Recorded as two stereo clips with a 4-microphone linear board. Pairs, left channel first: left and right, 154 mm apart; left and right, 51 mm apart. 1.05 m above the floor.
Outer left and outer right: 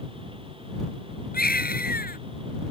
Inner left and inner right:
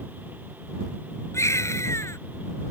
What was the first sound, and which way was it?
A baby crying, 75° left (ahead or behind).